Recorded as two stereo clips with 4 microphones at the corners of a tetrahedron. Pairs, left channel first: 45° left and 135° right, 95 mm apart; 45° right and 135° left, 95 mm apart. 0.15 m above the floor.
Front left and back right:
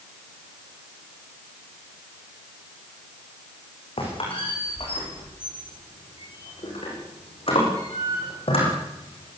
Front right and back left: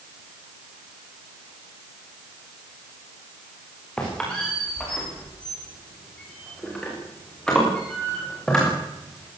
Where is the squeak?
35° left, 9.5 m.